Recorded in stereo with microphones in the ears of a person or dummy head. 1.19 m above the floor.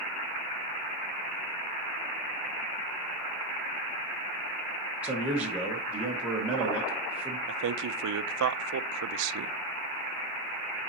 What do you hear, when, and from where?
5.0 s a man speaking: 10° right (ahead or behind), 1.1 m
7.5 s a man speaking: 65° right (ahead or behind), 0.5 m